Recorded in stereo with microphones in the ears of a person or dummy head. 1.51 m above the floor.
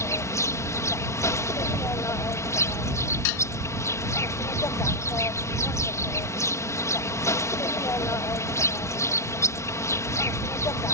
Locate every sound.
0.0 s an insect: 20° left (ahead or behind)
3.2 s dishes clattering: 65° left (ahead or behind)